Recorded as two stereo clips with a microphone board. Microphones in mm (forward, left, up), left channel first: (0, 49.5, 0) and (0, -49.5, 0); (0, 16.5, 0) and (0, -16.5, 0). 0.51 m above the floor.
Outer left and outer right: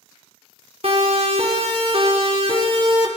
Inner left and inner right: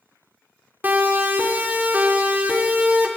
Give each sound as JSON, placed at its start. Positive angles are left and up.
{"t": 0.8, "sound": "a siren", "side_deg": -70, "distance_m": 5.5}